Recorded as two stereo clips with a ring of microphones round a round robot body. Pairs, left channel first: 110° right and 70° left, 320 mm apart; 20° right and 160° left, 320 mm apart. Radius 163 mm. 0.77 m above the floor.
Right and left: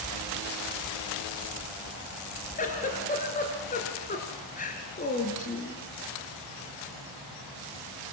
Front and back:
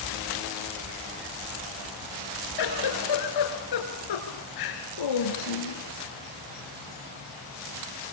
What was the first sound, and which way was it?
A giggle, 45° right.